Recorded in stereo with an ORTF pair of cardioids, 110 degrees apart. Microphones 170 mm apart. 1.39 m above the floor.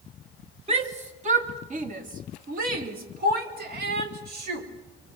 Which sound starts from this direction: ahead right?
A shout, at 0.7 s.